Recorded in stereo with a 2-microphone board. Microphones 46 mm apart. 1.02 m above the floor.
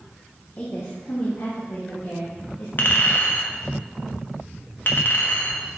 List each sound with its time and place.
0.6 s a woman speaking: 35° left (ahead or behind), 1.0 m; by 2.7 s 65° left (ahead or behind), 1.8 m
2.8 s a clink: 50° left (ahead or behind), 0.9 m